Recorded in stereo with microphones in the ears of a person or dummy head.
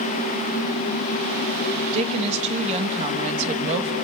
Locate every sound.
1.9 s a woman speaking: 35° right (ahead or behind), 1.6 m